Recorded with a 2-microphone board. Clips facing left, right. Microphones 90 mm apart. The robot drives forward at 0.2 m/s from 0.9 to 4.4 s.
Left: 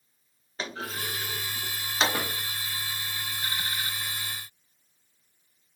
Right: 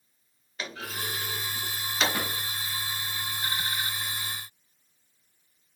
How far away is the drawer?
About 1.3 m.